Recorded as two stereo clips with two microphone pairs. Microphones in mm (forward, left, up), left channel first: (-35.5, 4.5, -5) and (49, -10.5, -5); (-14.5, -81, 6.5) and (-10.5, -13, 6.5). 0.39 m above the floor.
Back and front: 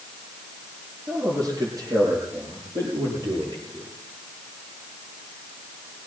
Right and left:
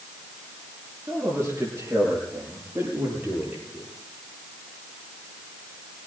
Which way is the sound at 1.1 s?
30° left.